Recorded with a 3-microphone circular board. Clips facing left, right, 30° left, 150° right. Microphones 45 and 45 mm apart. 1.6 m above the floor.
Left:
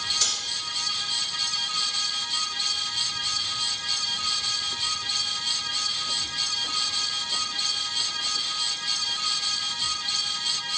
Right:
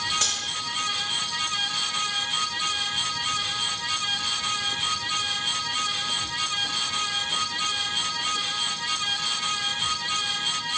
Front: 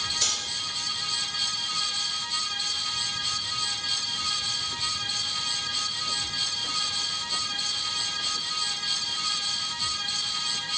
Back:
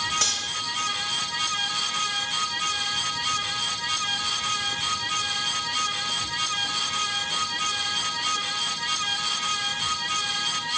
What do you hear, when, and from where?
0.2 s cutlery clinking: 135° right, 1.5 m